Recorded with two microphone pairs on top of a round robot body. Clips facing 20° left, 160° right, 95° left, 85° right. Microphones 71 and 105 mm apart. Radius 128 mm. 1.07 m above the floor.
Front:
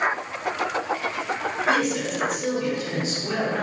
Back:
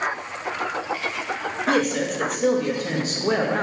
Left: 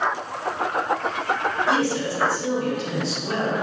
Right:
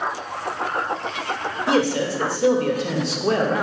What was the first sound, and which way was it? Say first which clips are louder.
A man speaking: back 2 dB, right 5 dB; 120° right.